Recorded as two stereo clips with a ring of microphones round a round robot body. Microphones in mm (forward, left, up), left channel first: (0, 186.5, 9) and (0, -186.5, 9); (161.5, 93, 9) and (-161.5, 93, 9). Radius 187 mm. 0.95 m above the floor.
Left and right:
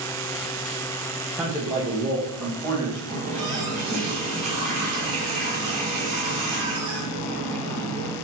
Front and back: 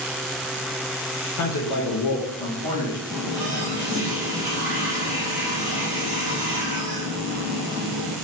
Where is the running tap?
105° right, 1.6 m.